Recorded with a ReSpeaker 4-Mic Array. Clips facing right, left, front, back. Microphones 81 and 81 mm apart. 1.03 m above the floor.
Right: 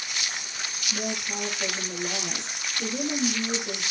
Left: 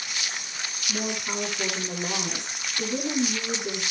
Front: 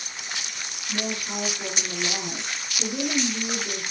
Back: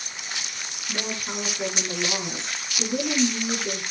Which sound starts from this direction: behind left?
A woman speaking, at 0.9 s.